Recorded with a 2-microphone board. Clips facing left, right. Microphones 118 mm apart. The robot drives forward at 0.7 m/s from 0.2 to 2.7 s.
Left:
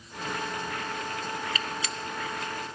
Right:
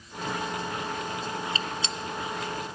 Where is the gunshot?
30° right (ahead or behind), 0.7 m; by 1.9 s 25° right (ahead or behind), 0.8 m.